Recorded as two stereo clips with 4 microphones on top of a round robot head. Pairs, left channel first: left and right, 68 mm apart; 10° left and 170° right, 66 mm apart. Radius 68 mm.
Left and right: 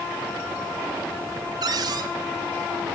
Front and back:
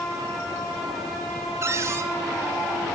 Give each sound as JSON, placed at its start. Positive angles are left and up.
{"t": 1.6, "sound": "a cupboard door", "azimuth_deg": -120, "distance_m": 1.3}